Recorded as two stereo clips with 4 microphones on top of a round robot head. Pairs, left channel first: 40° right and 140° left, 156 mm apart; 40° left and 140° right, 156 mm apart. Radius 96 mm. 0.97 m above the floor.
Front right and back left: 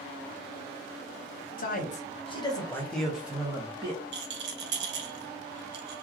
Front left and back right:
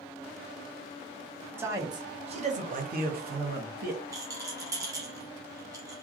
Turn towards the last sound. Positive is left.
turn(degrees=150)